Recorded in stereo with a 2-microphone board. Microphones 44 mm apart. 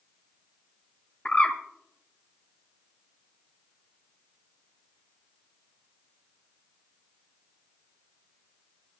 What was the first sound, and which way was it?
A bird, 35° left (ahead or behind).